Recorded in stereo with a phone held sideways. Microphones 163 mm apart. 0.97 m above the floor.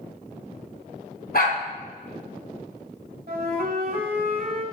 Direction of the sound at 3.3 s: 75° right (ahead or behind).